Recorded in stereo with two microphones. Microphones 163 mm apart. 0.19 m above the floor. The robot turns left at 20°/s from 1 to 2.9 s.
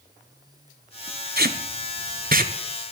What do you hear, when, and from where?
1.4 s tape being pulled: 70° right (ahead or behind), 0.6 m; by 2.5 s 60° right (ahead or behind), 0.6 m